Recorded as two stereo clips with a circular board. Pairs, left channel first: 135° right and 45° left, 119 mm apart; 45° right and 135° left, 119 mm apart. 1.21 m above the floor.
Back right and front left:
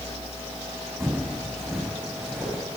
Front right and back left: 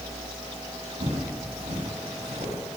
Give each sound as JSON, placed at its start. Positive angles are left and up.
{"t": 1.0, "sound": "footsteps", "azimuth_deg": 135, "distance_m": 3.0}